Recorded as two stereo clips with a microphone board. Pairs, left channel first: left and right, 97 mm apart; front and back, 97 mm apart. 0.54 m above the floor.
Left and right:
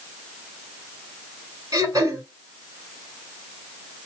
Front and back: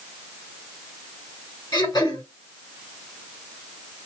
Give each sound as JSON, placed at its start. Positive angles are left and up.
{"t": 1.7, "sound": "throat clearing", "azimuth_deg": -40, "distance_m": 2.5}